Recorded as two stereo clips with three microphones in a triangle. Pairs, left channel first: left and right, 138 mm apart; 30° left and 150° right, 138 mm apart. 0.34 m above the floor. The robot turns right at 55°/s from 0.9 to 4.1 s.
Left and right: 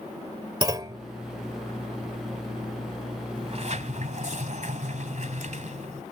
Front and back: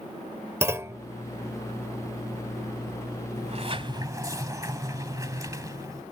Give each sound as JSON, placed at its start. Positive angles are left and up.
{"t": 0.6, "sound": "a clunk", "azimuth_deg": -100}
{"t": 3.4, "sound": "a sliding door", "azimuth_deg": -130}